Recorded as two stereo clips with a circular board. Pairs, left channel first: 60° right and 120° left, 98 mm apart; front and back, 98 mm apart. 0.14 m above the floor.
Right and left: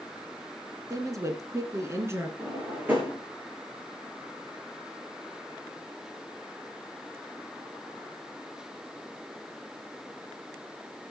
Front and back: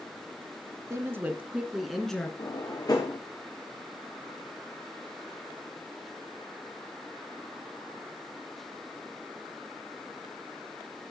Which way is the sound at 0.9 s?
145° left.